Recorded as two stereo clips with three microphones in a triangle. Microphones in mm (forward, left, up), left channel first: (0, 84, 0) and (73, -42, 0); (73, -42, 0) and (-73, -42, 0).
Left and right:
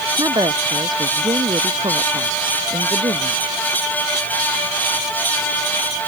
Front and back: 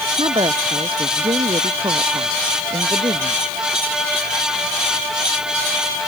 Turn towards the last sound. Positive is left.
turn(degrees=-120)